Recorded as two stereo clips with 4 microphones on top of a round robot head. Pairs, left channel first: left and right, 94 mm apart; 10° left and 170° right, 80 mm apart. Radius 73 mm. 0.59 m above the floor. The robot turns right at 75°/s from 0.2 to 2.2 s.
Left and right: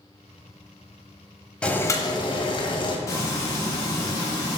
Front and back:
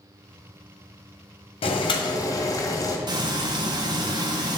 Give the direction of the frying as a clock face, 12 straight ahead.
7 o'clock.